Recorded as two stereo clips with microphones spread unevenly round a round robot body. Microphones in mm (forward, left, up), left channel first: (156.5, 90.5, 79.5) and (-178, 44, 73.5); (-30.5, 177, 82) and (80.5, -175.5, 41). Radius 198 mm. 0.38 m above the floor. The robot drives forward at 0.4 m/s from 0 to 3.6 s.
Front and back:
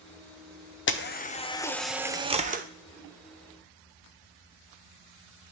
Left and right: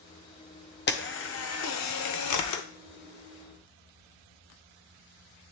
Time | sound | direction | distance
0.9 | a camera shutter | 50° left | 0.8 m